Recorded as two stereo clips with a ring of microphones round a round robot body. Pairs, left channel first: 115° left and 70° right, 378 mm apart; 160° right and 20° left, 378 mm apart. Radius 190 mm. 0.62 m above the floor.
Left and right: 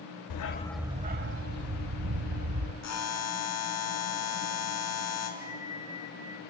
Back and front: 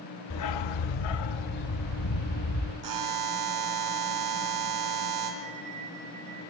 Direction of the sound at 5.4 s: 15° left.